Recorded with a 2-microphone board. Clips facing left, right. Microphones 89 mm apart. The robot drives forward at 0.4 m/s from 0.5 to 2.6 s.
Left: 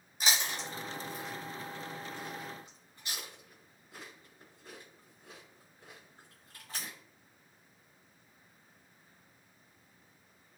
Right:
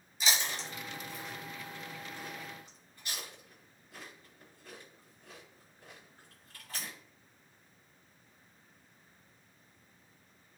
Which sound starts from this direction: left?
Chewing, at 0.2 s.